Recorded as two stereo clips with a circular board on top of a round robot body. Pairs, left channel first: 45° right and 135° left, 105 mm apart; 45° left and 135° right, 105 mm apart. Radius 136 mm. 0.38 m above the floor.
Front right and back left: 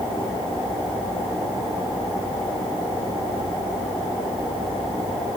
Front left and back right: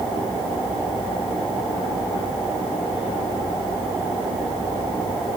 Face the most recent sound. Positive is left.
No sound to turn to.